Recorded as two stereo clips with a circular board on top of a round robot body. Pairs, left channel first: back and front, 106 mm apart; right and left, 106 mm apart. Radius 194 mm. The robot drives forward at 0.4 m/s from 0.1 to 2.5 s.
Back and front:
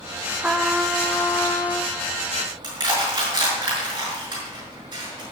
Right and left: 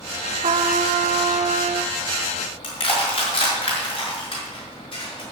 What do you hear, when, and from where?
0.4 s a trumpet: 75° left, 0.8 m; by 1.9 s 115° left, 0.9 m
2.6 s crushing: 50° right, 5.5 m